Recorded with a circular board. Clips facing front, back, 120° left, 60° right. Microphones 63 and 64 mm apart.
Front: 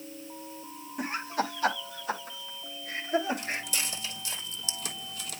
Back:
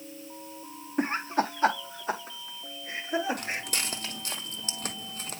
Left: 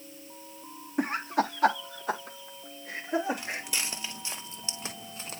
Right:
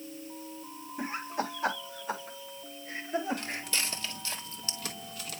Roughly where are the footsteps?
Behind.